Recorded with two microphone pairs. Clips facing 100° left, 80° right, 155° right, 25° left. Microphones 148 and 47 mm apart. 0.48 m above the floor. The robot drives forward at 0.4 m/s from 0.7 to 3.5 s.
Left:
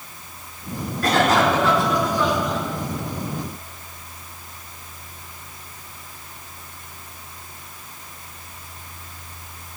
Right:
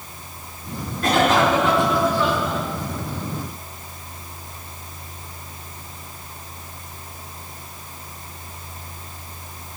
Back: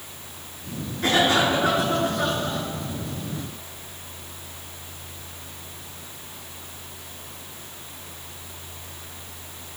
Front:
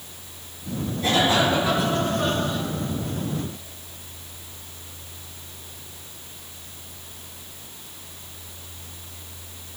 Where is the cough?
145° right, 5 m; by 2.6 s 150° right, 5.5 m.